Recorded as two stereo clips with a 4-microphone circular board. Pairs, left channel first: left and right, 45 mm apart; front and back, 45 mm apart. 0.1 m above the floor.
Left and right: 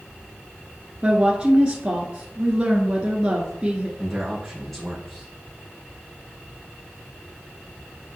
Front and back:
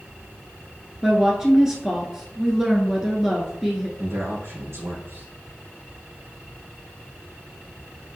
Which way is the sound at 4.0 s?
Straight behind.